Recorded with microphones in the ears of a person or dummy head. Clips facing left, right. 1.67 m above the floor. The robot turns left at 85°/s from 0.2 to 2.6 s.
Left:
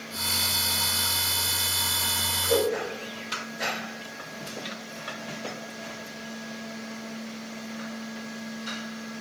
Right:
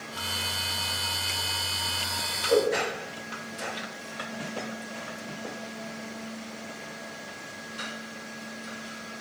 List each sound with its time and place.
2.5 s a whoosh: 20° left (ahead or behind), 1.3 m; by 2.7 s 10° left (ahead or behind), 1.3 m